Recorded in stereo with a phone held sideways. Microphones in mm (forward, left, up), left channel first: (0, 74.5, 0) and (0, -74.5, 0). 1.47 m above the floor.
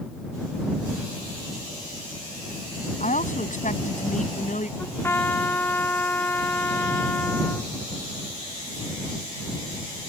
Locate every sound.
3.0 s a woman speaking: 55° left (ahead or behind)
4.8 s a trumpet: 15° left (ahead or behind)